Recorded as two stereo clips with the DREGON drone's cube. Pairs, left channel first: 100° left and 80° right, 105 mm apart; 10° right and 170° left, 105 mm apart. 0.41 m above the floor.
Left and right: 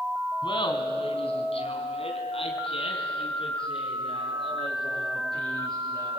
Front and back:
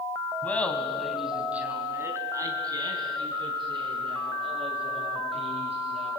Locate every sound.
0.4 s laughter: 65° left, 3 m; by 6.1 s 145° left, 7 m